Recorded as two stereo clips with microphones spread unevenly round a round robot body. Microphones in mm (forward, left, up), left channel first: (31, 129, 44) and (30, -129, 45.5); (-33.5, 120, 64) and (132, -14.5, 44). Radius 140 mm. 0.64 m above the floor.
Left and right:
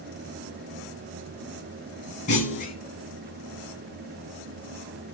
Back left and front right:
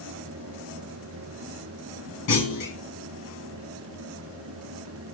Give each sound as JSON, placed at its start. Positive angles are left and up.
{"t": 2.3, "sound": "a clunk", "azimuth_deg": 155, "distance_m": 3.0}